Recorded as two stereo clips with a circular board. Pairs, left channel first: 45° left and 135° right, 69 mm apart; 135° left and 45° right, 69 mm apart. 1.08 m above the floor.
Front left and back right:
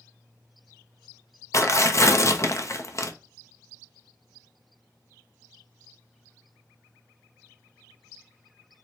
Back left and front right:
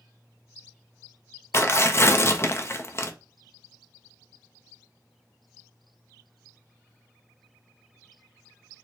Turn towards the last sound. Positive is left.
turn(degrees=85)